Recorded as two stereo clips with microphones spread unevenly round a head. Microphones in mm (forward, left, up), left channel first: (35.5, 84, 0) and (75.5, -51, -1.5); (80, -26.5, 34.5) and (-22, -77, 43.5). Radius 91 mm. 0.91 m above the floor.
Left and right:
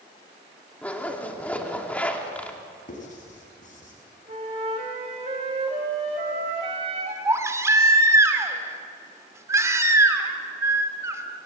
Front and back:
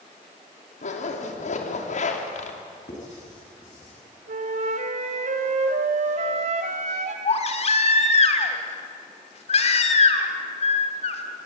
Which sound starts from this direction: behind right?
A flute, at 4.3 s.